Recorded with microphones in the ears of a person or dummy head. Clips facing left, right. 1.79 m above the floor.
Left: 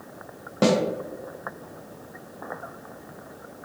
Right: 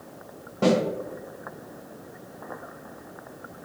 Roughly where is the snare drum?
Left.